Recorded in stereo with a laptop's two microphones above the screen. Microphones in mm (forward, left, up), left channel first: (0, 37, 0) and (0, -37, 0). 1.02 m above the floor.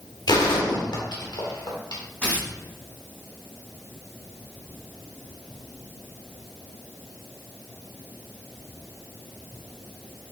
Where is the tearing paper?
20° left (ahead or behind), 3.5 m.